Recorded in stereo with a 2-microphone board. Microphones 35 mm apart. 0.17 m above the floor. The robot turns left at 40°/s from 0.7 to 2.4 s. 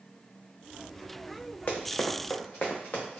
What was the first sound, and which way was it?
Running footsteps, 60° left (ahead or behind).